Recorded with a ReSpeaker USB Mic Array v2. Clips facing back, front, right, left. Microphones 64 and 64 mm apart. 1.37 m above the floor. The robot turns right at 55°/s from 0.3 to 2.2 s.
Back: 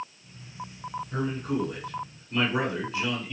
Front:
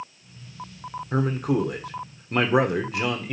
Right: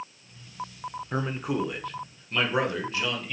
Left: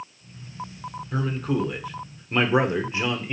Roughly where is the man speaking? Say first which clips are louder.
Front 6 dB, left 3 dB; ahead right.